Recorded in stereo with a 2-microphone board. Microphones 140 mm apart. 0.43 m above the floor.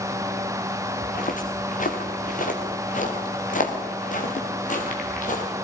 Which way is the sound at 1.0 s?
75° left (ahead or behind).